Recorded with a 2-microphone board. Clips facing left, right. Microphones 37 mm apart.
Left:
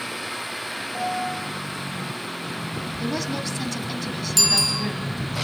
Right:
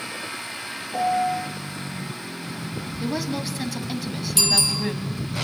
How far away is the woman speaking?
About 1.5 m.